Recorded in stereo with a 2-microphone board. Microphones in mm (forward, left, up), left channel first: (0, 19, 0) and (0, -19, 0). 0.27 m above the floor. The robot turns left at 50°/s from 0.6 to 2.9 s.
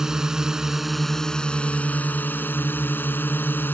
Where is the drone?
165° right; by 3.8 s 80° left.